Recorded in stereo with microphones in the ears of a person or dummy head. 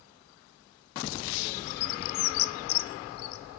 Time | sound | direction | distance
1.4 | a bird | 80° left | 0.9 m